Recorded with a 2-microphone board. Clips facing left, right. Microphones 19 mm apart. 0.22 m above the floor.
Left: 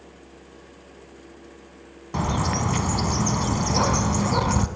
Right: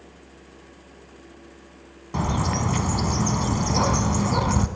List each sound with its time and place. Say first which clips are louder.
2.1 s a bird: even; 5° left (ahead or behind), 0.6 m